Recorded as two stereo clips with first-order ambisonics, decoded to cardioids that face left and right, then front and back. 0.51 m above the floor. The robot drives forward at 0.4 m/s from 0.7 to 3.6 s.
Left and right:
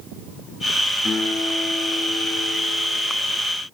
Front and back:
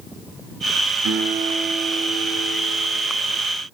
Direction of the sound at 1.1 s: 175° left.